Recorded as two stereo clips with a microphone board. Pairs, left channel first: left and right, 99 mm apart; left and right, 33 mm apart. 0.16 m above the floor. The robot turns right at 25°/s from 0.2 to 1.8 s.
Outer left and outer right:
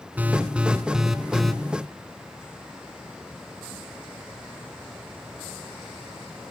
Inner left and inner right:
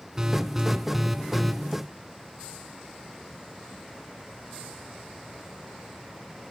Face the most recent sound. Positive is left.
turn(degrees=10)